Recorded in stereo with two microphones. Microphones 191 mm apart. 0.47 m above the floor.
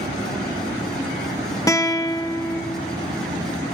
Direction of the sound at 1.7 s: 15° left (ahead or behind).